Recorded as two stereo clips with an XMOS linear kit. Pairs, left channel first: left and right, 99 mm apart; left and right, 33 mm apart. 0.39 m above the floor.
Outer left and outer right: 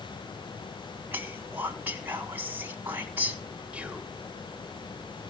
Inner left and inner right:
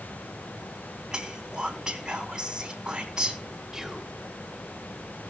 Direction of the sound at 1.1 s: 20° right (ahead or behind).